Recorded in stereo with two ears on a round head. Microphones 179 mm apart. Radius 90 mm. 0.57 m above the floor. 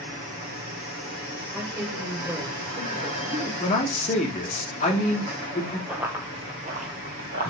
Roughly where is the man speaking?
Left.